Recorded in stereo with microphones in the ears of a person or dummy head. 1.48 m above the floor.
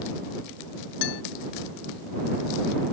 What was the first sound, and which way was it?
A guitar, 70° left (ahead or behind).